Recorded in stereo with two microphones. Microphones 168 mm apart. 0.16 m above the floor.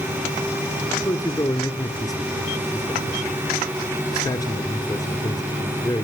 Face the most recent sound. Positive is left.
turn(degrees=20)  # may be behind; listen again after turning